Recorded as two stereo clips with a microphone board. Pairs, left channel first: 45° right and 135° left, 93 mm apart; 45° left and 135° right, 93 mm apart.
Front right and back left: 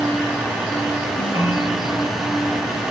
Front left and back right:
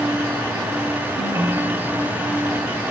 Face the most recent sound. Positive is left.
turn(degrees=-75)